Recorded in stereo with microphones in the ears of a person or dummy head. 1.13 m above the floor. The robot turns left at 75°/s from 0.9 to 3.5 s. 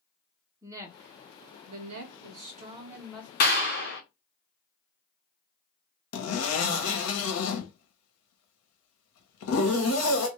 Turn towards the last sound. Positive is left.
turn(degrees=80)